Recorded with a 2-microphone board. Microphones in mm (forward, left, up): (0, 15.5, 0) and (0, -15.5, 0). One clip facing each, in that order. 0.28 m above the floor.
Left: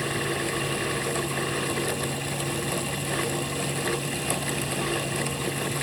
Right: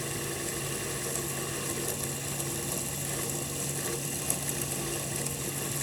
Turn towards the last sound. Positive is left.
No sound to turn to.